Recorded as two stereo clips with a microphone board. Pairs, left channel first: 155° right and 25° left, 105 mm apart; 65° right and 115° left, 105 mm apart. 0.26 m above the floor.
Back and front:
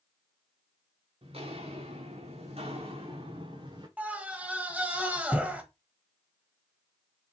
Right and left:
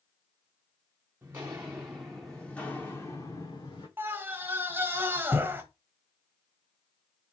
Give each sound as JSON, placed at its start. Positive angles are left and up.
{"t": 1.2, "sound": "footsteps", "azimuth_deg": 45, "distance_m": 1.5}
{"t": 4.0, "sound": "a scream", "azimuth_deg": 80, "distance_m": 1.0}